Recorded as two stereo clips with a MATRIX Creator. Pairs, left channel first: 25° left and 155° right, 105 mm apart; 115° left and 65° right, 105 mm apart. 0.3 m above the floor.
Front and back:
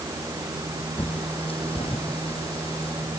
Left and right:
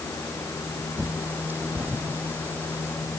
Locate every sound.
1.0 s a bird: 5° left, 3.5 m